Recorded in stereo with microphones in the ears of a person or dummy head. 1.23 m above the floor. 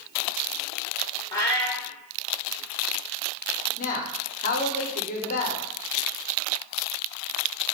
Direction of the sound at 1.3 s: 10° left (ahead or behind).